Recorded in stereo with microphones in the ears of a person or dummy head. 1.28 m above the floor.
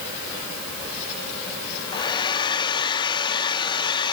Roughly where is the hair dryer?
Left.